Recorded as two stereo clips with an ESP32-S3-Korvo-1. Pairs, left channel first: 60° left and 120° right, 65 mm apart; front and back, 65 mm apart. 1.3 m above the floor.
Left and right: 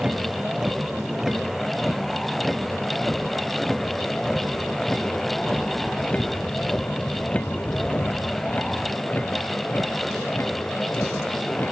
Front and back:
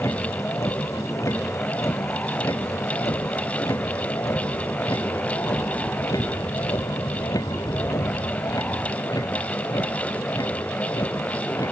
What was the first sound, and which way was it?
A vehicle, 40° right.